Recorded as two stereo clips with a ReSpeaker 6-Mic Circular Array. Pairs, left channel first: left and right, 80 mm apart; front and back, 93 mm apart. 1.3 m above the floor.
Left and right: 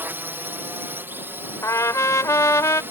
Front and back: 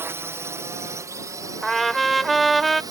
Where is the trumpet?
90° left.